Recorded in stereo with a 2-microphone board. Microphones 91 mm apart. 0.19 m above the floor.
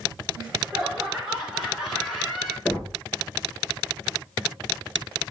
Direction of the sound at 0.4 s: 15° right (ahead or behind).